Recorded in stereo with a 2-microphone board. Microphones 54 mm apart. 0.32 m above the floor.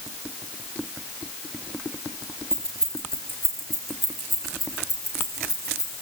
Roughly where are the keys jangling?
Centre.